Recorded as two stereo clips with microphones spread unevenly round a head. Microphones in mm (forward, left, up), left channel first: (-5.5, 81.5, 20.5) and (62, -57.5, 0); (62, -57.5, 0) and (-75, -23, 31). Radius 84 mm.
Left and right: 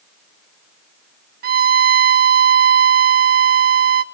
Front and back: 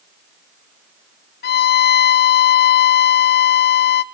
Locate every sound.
1.4 s a violin: 30° right, 0.8 m